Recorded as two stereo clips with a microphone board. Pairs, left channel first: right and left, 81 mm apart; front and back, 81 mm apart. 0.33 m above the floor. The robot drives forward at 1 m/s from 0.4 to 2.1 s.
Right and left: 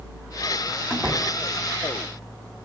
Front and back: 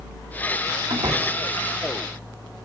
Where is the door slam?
170° left, 2 m.